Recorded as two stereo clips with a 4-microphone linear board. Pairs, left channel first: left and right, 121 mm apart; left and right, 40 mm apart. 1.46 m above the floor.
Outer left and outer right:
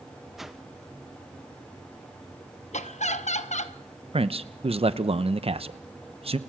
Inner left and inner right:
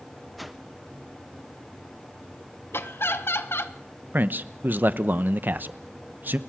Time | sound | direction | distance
0.4 | a whoosh | centre (ahead or behind) | 1.0 m
2.7 | laughter | 85° left | 1.2 m
4.1 | a man speaking | 55° right (ahead or behind) | 0.9 m